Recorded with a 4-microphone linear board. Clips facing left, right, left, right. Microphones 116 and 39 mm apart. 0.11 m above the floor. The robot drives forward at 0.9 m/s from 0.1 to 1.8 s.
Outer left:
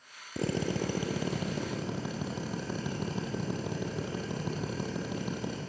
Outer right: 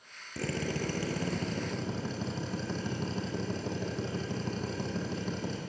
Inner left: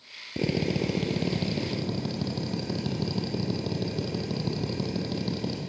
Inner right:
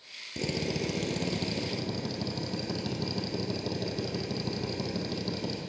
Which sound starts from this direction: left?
A drill, at 0.4 s.